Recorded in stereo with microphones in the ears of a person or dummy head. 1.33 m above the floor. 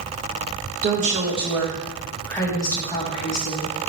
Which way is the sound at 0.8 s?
45° right (ahead or behind).